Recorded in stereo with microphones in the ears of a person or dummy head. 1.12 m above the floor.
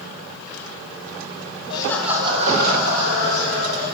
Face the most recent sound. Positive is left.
turn(degrees=-80)